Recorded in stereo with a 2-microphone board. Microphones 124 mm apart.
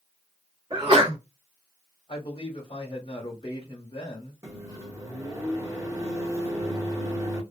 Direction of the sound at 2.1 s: 40° left (ahead or behind).